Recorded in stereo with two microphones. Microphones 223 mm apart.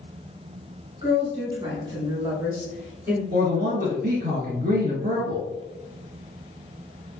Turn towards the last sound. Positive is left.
turn(degrees=-40)  # may be behind; listen again after turning